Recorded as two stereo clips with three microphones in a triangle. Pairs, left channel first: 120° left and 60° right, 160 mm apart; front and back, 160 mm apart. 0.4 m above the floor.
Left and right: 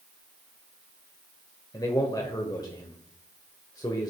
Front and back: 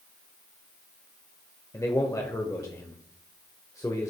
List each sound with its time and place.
1.7 s a man speaking: 65° left, 1.2 m